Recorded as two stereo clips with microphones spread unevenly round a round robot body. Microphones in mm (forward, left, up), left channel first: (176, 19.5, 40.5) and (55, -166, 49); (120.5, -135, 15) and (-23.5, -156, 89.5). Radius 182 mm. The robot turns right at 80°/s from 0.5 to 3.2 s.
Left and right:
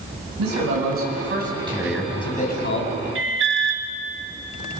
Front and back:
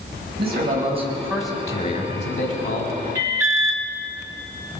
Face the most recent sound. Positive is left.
turn(degrees=-95)